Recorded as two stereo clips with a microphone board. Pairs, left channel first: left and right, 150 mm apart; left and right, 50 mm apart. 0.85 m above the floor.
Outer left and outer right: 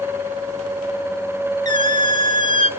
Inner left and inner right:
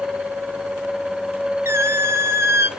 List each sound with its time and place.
1.6 s a squeak: 60° right (ahead or behind), 1.4 m